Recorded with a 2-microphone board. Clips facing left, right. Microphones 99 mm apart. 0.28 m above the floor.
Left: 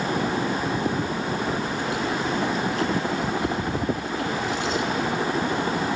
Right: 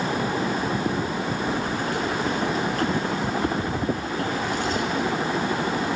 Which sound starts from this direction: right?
Keys jangling, at 1.5 s.